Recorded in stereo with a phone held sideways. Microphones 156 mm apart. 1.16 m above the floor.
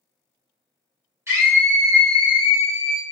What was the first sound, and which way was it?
A scream, 15° right (ahead or behind).